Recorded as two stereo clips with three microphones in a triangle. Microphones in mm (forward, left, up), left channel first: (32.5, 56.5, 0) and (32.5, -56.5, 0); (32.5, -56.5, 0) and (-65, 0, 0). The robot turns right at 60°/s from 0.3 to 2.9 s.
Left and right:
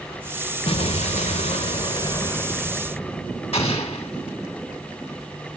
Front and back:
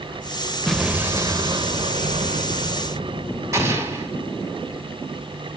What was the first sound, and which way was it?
An explosion, 55° left.